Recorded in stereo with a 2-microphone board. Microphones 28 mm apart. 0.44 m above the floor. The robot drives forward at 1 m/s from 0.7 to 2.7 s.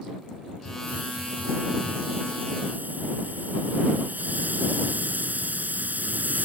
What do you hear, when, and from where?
0.7 s a hiss: 70° right (ahead or behind); by 6.5 s 80° right